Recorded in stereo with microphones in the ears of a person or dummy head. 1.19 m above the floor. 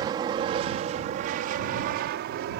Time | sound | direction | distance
0.0 | an aircraft | 25° right (ahead or behind) | ?